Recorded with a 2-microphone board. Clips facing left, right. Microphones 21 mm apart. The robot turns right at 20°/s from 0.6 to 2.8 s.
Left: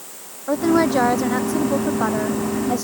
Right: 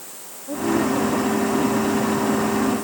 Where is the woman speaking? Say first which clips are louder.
Left 4 dB; 75° left; by 2.8 s 115° left.